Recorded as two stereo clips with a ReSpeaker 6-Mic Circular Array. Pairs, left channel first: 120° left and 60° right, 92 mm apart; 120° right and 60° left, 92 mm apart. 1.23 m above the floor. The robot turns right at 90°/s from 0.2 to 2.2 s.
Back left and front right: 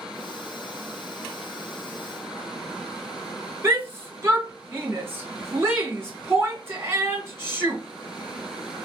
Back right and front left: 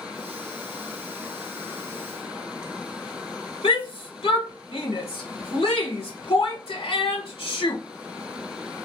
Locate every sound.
3.6 s a shout: 120° right, 0.8 m